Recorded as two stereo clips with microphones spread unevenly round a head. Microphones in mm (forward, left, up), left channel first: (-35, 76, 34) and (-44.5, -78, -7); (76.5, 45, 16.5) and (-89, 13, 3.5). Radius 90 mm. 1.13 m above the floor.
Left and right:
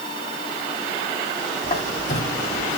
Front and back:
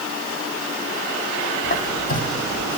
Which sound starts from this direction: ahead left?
A squeak, at 1.6 s.